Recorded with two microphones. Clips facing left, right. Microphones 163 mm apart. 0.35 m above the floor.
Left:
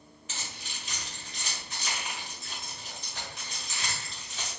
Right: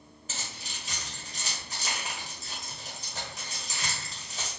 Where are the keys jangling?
40° right (ahead or behind), 1.1 m.